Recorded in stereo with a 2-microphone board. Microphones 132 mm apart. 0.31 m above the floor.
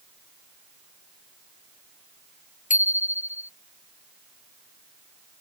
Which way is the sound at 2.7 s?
75° left (ahead or behind).